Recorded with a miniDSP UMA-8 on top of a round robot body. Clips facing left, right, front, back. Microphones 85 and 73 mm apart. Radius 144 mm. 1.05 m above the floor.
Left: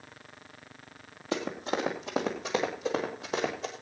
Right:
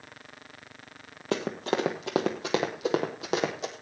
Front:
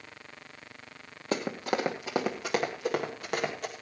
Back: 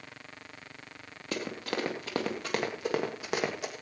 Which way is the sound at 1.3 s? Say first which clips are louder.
Right 3 dB, front 4 dB; 55° right.